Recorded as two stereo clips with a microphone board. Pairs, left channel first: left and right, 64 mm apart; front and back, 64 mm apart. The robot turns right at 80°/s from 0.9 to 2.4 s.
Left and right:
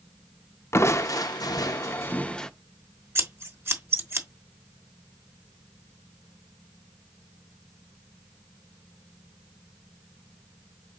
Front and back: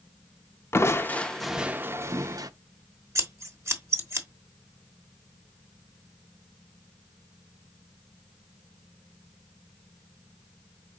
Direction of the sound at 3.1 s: 140° right.